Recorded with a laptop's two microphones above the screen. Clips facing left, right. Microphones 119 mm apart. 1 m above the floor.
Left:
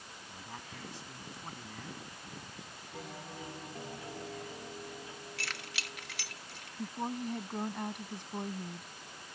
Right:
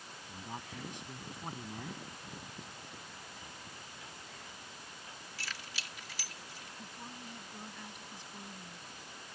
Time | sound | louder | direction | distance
0.3 | a man speaking | right 3 dB | 15° right (ahead or behind) | ?
2.9 | a bell | left 7 dB | 70° left (ahead or behind) | ?
5.4 | keys jangling | left 1 dB | 60° left (ahead or behind) | ?
6.8 | a woman speaking | left 14 dB | 55° left (ahead or behind) | ?